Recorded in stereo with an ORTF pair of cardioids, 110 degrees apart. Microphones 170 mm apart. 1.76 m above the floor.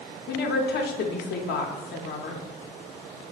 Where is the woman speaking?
65° left, 0.7 m.